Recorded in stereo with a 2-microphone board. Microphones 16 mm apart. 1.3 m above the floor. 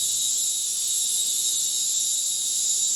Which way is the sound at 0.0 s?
30° left (ahead or behind).